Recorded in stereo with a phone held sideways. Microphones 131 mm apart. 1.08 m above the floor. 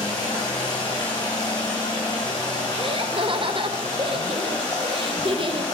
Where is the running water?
30° left (ahead or behind), 3 m.